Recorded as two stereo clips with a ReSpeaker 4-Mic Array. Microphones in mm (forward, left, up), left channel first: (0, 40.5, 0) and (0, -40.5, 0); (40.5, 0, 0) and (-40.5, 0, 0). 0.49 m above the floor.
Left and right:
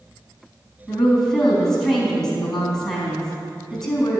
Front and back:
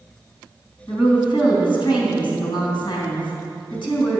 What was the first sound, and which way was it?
A woman speaking, 5° left.